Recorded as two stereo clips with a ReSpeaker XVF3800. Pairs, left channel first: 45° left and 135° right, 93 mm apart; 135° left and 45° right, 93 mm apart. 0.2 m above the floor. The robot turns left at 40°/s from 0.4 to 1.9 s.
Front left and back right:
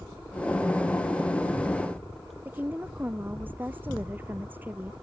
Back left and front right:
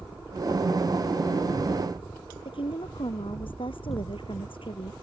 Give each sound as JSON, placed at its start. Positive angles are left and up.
{"t": 2.5, "sound": "a woman speaking", "azimuth_deg": 155}